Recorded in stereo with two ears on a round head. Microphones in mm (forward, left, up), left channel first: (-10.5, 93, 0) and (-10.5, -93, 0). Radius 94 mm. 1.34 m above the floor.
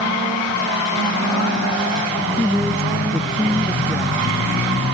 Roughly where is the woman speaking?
Centre.